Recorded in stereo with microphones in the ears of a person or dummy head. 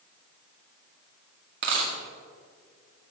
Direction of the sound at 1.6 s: 55° right (ahead or behind).